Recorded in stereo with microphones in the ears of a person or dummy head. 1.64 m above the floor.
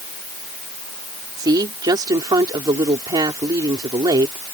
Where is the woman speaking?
20° right (ahead or behind).